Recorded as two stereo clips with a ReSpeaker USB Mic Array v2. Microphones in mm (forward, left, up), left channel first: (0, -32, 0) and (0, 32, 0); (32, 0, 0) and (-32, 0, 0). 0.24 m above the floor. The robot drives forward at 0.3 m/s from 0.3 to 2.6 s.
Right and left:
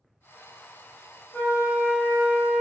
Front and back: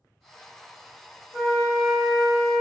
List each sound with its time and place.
1.3 s a flute: 125° right, 1.6 m; by 2.6 s 145° right, 1.7 m